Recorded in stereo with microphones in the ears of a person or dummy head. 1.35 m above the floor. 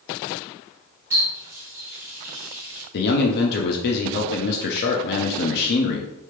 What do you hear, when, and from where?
1.1 s a running tap: 10° right (ahead or behind), 1.0 m
2.9 s a man speaking: 55° left (ahead or behind), 0.5 m